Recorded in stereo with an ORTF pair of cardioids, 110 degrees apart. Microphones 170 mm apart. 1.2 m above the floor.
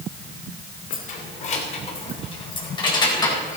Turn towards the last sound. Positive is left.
turn(degrees=20)